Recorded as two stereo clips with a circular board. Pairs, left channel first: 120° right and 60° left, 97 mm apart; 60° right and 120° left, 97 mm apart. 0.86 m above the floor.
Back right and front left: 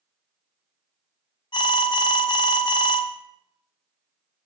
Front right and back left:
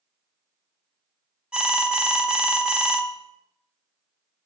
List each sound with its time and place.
1.5 s an alarm: 160° right, 0.6 m